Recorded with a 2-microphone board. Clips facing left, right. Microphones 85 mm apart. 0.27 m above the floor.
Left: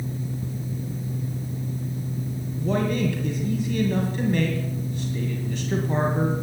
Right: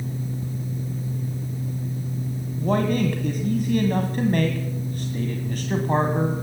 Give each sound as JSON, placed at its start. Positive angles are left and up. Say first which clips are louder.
{"t": 2.6, "sound": "a man speaking", "louder": "right 2 dB", "side_deg": -50, "distance_m": 1.6}